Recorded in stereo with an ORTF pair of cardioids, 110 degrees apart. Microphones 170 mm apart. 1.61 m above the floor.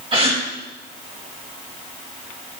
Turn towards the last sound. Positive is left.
turn(degrees=-35)